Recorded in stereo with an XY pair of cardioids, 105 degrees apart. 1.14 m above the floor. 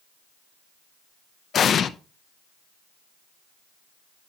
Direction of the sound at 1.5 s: 55° left.